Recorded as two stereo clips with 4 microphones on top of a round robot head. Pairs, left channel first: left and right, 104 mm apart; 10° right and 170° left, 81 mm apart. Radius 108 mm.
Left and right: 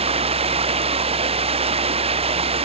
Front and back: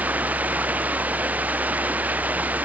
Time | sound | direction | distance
0.0 | running water | 115° right | ?